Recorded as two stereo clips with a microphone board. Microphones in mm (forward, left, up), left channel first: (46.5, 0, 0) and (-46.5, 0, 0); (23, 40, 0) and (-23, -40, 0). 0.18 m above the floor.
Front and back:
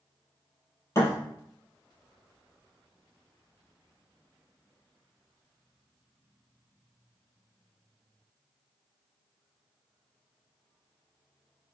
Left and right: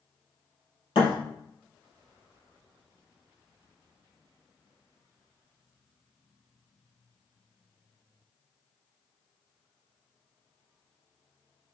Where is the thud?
55° left, 2.5 m.